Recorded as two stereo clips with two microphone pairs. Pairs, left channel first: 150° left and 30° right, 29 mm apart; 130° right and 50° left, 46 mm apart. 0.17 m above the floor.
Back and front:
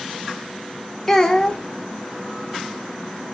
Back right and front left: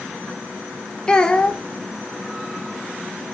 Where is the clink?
No clink in this recording.